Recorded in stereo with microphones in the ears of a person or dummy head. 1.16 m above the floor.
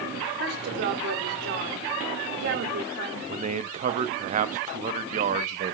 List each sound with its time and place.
0.4 s a woman speaking: 60° right (ahead or behind), 3 m
3.3 s a man speaking: 40° right (ahead or behind), 1.0 m